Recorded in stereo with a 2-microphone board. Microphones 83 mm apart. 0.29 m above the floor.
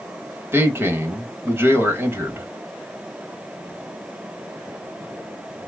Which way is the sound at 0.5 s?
30° right (ahead or behind).